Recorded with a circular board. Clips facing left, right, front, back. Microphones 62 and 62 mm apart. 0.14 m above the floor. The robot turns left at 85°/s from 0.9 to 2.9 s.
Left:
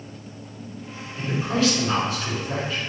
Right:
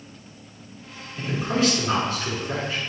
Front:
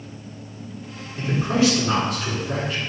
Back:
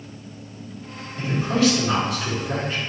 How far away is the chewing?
No chewing in this recording.